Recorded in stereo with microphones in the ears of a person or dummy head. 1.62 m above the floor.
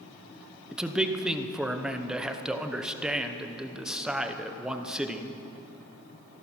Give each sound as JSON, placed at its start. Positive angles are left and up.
{"t": 0.7, "sound": "a man speaking", "side_deg": 0, "distance_m": 0.9}